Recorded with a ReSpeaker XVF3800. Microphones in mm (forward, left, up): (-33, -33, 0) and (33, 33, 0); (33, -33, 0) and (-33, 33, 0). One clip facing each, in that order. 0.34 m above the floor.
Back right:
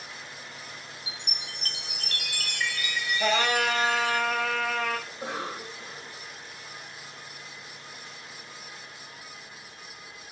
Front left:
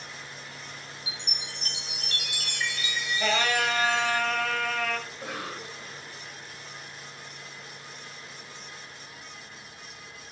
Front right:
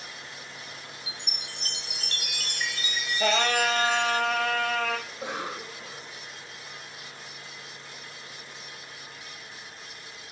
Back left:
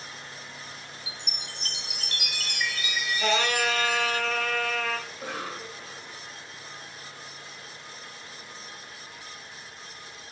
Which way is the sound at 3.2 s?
60° right.